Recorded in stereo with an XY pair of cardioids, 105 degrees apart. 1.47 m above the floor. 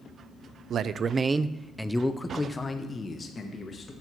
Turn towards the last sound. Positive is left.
turn(degrees=40)